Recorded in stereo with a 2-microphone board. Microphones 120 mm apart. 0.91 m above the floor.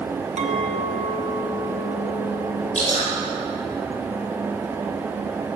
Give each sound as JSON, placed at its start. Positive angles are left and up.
{"t": 0.4, "sound": "a clink", "side_deg": -70, "distance_m": 1.0}
{"t": 2.8, "sound": "dripping", "side_deg": 80, "distance_m": 5.0}